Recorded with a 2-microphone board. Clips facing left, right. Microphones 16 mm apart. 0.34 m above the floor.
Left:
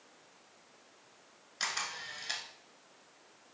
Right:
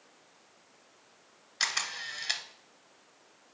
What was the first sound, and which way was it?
A camera shutter, 40° right (ahead or behind).